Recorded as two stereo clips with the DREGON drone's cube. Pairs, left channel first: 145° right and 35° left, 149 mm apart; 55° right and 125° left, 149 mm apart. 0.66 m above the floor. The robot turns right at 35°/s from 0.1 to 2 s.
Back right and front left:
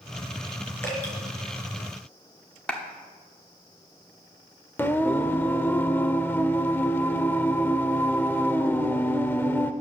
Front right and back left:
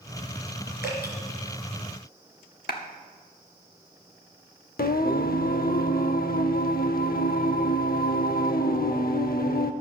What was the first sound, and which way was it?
Dripping, 70° right.